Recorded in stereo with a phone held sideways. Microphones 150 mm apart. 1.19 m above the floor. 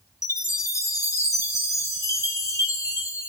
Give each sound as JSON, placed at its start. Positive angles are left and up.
{"t": 0.2, "sound": "a chime", "side_deg": 20, "distance_m": 0.6}